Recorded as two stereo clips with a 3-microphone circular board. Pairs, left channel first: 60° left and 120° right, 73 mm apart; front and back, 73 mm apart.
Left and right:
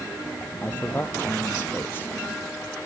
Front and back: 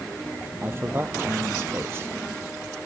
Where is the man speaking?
125° left.